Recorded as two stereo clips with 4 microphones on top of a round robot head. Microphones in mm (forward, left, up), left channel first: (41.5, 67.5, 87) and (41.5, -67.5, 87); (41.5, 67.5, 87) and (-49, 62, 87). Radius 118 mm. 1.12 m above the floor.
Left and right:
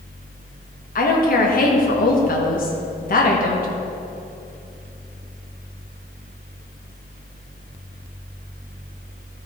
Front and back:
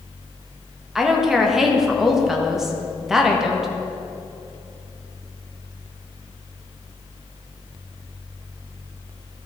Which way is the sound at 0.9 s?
95° left.